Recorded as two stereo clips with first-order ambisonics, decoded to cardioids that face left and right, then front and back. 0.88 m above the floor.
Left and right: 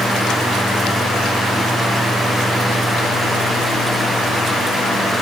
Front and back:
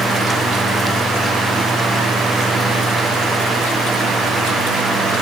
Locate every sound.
Only background noise.